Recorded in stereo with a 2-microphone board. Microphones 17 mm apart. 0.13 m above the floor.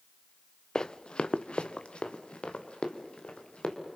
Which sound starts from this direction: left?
Running footsteps, at 0.8 s.